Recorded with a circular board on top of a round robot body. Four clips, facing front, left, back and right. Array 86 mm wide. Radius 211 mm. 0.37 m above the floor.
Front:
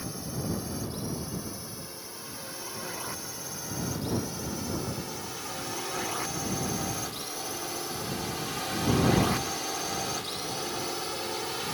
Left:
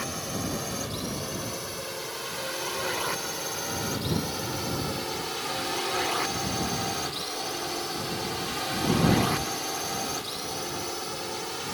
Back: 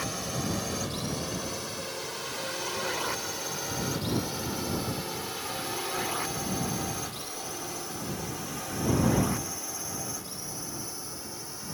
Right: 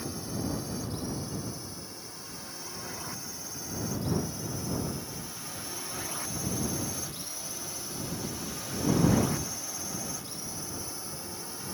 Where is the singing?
I don't hear singing.